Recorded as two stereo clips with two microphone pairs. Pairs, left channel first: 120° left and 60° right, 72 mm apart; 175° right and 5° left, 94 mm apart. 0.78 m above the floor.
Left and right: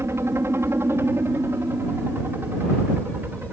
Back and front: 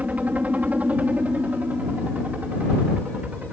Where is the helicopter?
60° right; by 3.5 s 55° right.